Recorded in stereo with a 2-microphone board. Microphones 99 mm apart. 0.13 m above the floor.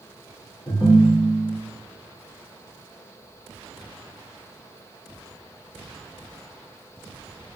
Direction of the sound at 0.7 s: 45° left (ahead or behind).